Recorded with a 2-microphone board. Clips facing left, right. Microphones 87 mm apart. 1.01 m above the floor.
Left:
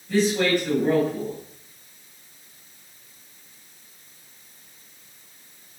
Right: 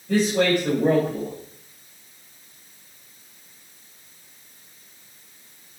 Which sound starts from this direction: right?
A man speaking, at 0.1 s.